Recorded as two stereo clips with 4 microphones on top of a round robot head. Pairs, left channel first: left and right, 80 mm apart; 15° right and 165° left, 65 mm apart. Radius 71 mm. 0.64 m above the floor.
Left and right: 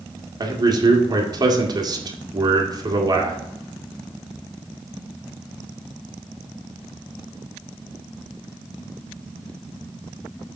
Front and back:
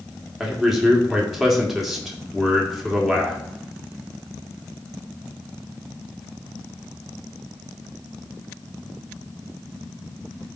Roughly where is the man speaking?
Right.